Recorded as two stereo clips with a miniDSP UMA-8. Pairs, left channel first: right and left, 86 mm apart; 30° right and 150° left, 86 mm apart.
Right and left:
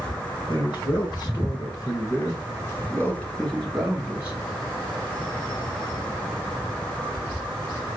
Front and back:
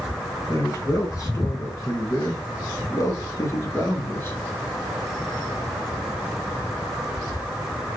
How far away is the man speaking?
About 2 m.